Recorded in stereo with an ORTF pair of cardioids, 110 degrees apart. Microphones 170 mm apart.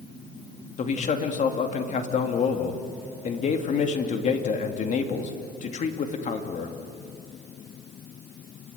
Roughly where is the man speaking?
Ahead left.